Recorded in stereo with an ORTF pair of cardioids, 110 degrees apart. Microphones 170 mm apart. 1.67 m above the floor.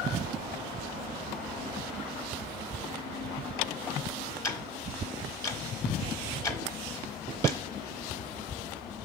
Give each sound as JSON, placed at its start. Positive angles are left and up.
{"t": 4.4, "sound": "ticking", "azimuth_deg": 20, "distance_m": 0.7}